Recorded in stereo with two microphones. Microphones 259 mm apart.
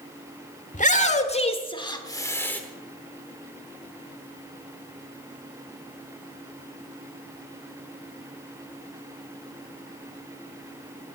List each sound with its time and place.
0.7 s a shout: 30° left (ahead or behind), 1.2 m; by 2.6 s 5° left (ahead or behind), 1.1 m